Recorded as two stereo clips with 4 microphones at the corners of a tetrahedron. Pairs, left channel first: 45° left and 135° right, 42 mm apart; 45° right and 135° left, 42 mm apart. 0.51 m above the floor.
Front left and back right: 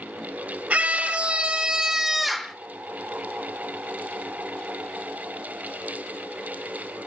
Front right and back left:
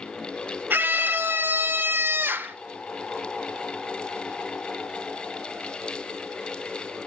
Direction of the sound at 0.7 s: 170° left.